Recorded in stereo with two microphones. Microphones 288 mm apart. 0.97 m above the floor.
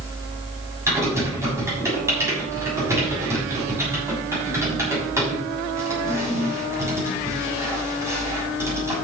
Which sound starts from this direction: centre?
Typing on a keyboard, at 0.9 s.